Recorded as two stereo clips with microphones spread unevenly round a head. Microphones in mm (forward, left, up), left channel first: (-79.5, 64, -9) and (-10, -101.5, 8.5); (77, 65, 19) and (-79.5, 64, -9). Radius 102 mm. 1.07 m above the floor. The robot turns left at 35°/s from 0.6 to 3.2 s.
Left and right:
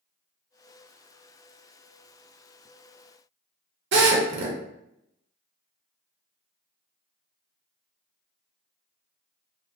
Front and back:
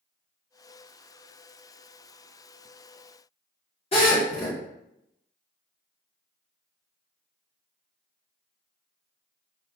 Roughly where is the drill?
Ahead right.